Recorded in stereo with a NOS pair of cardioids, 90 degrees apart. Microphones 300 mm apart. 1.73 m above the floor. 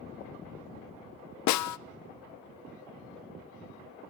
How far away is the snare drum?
About 0.5 m.